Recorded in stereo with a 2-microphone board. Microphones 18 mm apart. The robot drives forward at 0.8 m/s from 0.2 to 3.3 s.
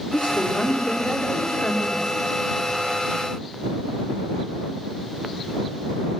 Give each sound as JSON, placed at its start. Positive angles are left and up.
{"t": 0.1, "sound": "a woman speaking", "side_deg": 80, "distance_m": 8.0}